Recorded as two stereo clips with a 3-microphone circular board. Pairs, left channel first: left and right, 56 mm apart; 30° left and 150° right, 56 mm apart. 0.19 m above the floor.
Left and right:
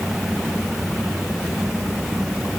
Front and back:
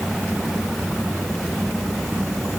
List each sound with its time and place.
Only background noise.